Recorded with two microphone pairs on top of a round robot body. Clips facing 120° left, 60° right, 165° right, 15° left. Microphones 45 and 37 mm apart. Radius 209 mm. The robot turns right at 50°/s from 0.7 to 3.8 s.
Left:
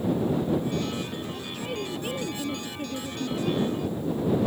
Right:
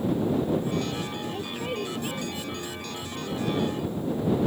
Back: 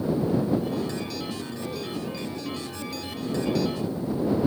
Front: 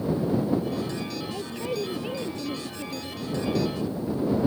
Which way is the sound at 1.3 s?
Straight ahead.